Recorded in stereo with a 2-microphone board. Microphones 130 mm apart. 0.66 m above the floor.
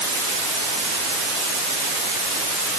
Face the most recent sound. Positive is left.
No sound to turn to.